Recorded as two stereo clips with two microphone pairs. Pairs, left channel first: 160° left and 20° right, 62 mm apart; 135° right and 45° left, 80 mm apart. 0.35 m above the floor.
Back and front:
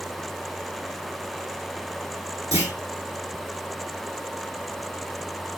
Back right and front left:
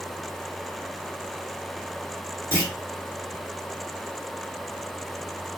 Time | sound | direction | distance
2.5 | a clunk | 15° right | 2 m